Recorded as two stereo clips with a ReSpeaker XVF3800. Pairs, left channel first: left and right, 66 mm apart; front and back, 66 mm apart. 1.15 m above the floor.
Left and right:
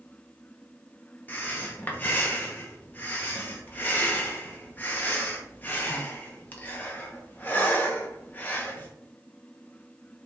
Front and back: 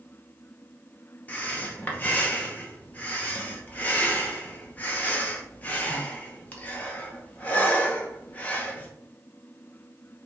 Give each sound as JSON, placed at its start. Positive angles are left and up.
{"t": 1.3, "sound": "breathing", "azimuth_deg": 45, "distance_m": 0.7}